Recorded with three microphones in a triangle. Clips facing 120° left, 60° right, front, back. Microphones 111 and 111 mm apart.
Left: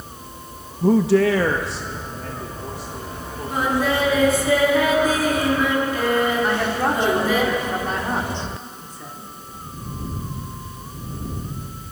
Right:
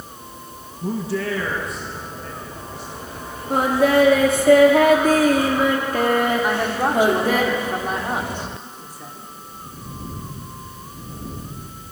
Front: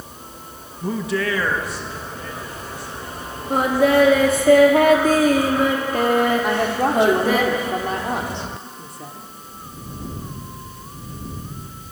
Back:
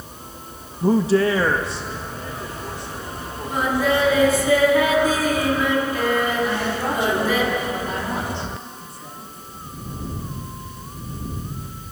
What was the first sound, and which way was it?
A man speaking, 125° left.